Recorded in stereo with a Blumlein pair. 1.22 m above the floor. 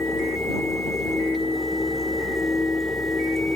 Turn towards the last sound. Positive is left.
turn(degrees=10)